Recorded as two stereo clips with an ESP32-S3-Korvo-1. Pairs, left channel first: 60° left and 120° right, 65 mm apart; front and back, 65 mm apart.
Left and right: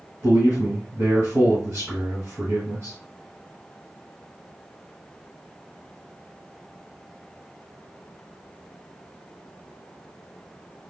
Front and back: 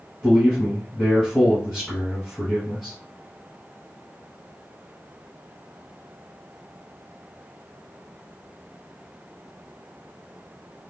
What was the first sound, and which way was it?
A man speaking, 105° right.